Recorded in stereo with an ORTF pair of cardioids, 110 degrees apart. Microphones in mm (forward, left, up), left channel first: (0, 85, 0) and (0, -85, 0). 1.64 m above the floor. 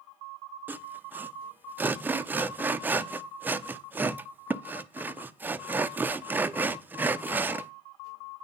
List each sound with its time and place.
0.7 s sawing: 10° right, 0.6 m